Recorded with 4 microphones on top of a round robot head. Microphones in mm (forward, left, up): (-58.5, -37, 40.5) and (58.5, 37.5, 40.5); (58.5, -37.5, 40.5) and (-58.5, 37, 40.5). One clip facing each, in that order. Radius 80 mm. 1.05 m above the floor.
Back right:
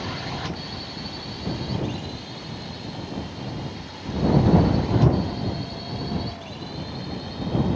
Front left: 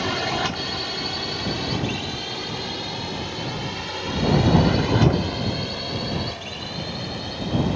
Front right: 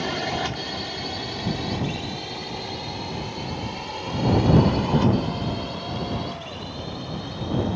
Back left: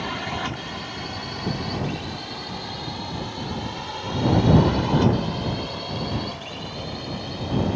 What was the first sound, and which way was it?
A drone, 10° left.